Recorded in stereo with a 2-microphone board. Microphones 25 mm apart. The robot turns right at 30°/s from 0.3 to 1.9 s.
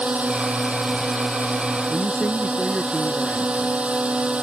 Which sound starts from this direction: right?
A drone, at 0.0 s.